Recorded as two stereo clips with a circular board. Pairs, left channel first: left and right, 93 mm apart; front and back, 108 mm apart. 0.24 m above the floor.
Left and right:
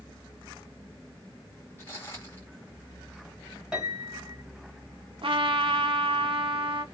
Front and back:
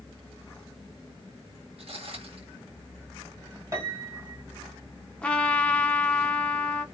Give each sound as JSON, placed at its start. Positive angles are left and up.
{"t": 1.8, "sound": "footsteps", "azimuth_deg": 150, "distance_m": 1.4}
{"t": 3.7, "sound": "a piano", "azimuth_deg": -160, "distance_m": 1.7}
{"t": 5.2, "sound": "a trumpet", "azimuth_deg": -80, "distance_m": 0.6}